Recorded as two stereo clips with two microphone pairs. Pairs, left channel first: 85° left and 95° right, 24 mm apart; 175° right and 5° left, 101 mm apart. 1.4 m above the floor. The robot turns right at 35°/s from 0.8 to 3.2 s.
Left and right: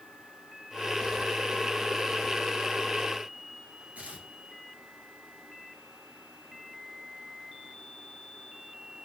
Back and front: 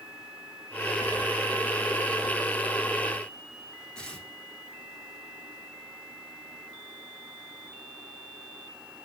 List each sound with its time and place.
4.0 s tearing paper: 95° right, 2.5 m